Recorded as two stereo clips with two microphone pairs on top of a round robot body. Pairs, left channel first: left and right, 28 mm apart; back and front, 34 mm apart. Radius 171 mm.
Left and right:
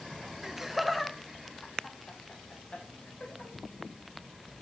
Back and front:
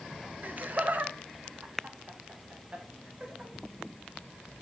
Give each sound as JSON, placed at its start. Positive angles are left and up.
{"t": 0.4, "sound": "laughter", "azimuth_deg": -20, "distance_m": 1.2}